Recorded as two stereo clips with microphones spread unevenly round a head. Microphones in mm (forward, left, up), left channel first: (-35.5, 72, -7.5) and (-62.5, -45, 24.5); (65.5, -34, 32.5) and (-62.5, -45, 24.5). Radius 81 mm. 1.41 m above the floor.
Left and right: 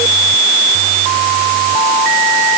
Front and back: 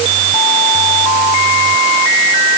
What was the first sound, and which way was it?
Only background noise.